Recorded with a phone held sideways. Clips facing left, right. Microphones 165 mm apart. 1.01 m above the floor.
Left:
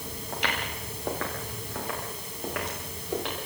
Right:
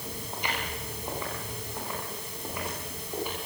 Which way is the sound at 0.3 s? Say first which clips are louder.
Left 3 dB; 75° left (ahead or behind).